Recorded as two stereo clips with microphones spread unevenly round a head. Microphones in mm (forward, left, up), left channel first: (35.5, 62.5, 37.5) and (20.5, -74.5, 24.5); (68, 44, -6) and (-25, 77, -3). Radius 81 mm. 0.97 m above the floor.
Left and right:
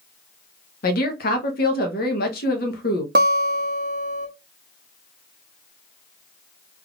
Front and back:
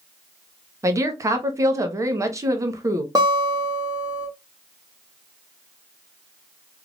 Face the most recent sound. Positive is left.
turn(degrees=-135)